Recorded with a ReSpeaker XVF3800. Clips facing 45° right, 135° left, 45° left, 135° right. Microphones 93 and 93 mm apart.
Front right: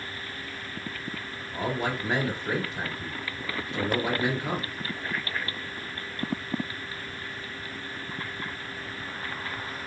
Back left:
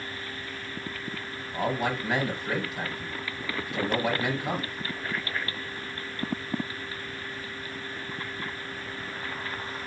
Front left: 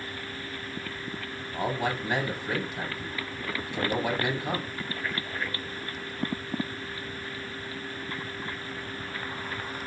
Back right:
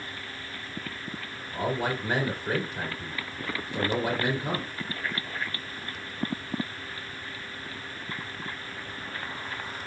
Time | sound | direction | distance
1.5 | a man speaking | 95° right | 2.5 m